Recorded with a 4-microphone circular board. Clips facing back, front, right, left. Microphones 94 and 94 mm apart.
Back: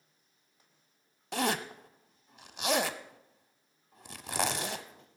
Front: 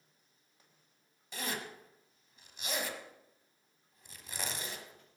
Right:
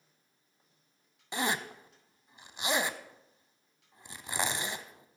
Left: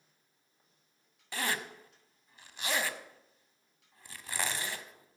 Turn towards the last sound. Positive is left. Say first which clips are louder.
# back 9 dB, right 3 dB
turn(degrees=-160)